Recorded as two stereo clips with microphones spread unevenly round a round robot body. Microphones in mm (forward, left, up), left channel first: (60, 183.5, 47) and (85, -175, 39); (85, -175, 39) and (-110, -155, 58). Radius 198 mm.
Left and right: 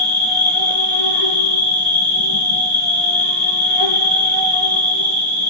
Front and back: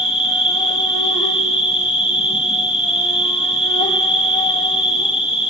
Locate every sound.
0.0 s an insect: 95° left, 5 m